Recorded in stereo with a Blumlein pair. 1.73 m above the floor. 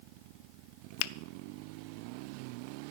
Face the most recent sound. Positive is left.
turn(degrees=45)